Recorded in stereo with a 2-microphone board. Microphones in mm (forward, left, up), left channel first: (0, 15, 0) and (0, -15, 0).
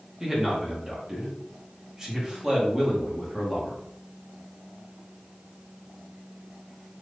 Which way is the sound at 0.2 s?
15° right (ahead or behind).